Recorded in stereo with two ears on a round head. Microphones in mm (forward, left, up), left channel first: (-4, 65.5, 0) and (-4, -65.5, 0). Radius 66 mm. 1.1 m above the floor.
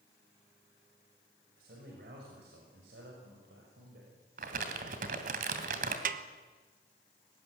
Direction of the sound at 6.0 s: 60° right (ahead or behind).